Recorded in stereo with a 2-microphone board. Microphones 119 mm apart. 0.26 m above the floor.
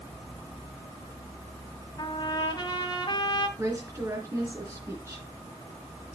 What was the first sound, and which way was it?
A trumpet, 40° left (ahead or behind).